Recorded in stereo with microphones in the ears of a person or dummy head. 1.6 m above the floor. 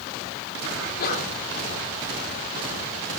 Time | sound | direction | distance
0.8 | a sneeze | 60° left (ahead or behind) | 5 m